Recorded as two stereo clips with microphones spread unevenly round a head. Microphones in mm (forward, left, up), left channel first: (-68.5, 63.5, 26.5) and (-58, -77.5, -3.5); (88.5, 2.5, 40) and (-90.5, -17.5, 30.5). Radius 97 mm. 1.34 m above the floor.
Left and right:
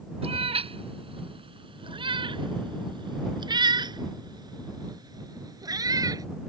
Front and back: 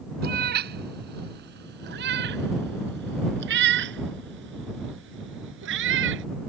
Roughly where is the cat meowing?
Behind right.